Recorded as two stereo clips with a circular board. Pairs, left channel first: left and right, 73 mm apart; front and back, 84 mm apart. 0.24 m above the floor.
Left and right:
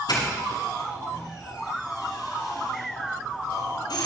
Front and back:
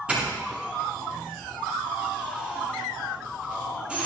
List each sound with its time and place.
0.1 s a doorbell: 105° left, 8.5 m